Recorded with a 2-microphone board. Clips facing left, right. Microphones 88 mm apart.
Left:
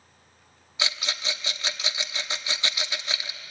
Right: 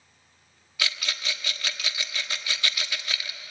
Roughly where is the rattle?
Left.